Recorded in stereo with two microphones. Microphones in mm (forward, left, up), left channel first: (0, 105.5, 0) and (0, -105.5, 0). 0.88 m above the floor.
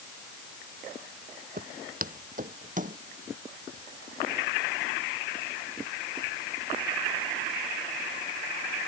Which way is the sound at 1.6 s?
45° right (ahead or behind).